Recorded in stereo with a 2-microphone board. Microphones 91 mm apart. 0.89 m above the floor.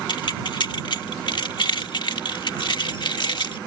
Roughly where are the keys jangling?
Left.